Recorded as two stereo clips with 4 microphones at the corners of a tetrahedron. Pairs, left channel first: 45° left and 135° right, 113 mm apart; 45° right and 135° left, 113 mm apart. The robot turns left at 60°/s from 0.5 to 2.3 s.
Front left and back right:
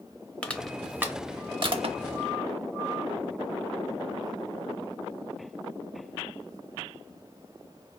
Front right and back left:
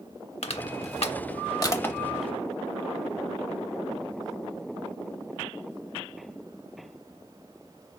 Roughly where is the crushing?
Ahead right.